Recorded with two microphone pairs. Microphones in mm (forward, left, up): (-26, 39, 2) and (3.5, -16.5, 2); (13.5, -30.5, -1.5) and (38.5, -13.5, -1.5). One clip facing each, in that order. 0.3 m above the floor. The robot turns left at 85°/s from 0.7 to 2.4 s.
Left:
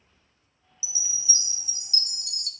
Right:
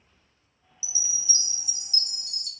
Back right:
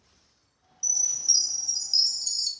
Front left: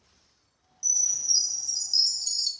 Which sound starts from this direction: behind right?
A chime, at 0.8 s.